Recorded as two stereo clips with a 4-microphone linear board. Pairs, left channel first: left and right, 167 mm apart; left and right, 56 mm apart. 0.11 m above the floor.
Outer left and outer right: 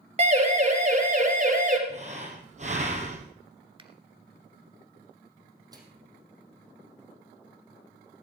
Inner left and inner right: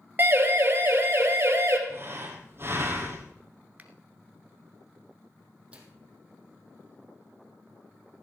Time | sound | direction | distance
0.2 | a siren | 40° right (ahead or behind) | 3 m
1.9 | breathing | 45° right (ahead or behind) | 2.5 m
3.8 | a finger snap | 30° right (ahead or behind) | 1.3 m
5.7 | a microwave | 25° right (ahead or behind) | 3.5 m